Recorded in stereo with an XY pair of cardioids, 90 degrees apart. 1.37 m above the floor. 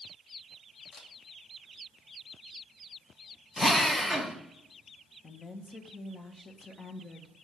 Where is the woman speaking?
35° left, 1.3 m.